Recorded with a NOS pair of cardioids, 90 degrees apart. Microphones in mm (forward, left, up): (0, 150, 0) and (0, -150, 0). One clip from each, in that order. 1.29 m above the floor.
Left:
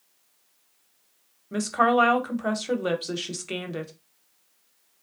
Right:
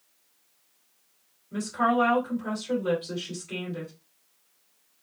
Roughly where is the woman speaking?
Ahead left.